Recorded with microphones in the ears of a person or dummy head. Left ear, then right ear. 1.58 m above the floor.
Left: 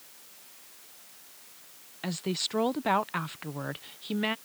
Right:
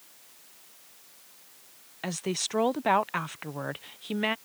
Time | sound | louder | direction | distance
2.0 | a woman speaking | right 1 dB | 20° right (ahead or behind) | ?